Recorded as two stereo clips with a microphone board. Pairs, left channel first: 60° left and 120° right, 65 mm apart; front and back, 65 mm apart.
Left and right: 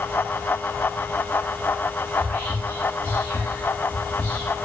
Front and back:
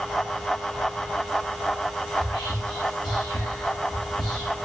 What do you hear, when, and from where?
2.1 s whispering: 10° right, 0.7 m